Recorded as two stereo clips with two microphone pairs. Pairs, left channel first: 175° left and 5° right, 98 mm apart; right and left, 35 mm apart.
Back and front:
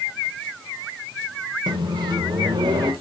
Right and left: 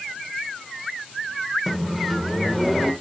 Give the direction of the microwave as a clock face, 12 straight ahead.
12 o'clock.